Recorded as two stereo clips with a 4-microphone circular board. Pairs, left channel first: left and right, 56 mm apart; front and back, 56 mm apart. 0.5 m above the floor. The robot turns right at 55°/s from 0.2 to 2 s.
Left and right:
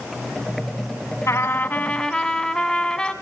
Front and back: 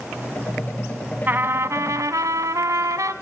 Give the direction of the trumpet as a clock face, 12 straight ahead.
8 o'clock.